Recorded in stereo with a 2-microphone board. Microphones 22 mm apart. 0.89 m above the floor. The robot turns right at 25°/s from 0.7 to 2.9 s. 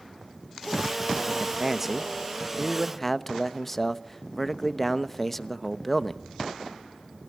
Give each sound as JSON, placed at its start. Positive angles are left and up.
{"t": 1.3, "sound": "a man speaking", "azimuth_deg": -30, "distance_m": 0.9}